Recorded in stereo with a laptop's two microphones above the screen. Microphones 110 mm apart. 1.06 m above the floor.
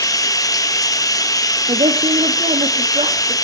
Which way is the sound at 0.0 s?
30° left (ahead or behind).